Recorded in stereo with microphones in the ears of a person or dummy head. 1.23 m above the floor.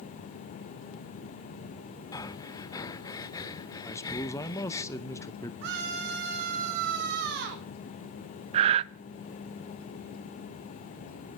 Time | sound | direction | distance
2.1 | breathing | 20° left (ahead or behind) | 0.8 m
3.8 | a man speaking | 15° left (ahead or behind) | 0.7 m
5.6 | a scream | 55° right (ahead or behind) | 4 m
8.5 | breathing | 35° right (ahead or behind) | 0.7 m